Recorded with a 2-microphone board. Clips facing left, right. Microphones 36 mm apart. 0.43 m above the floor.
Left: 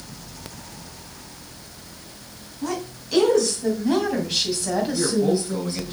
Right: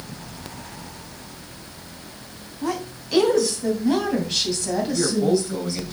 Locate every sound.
2.6 s a woman speaking: 20° right (ahead or behind), 3 m; by 5.9 s 30° left (ahead or behind), 2.5 m
4.9 s a man speaking: 10° right (ahead or behind), 2.5 m